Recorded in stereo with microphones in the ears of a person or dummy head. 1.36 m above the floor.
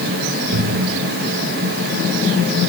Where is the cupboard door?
60° right (ahead or behind), 2.5 m.